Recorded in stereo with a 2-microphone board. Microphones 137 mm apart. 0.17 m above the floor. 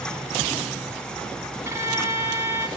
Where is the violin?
20° right (ahead or behind), 1.8 m.